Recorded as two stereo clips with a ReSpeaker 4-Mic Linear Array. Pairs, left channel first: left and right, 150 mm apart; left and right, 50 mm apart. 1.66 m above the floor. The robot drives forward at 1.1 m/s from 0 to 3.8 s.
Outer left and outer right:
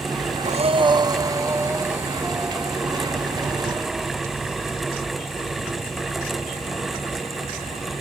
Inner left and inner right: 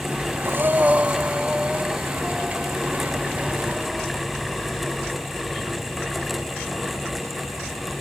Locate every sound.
0.5 s breathing: 50° right (ahead or behind); by 5.6 s 5° right (ahead or behind)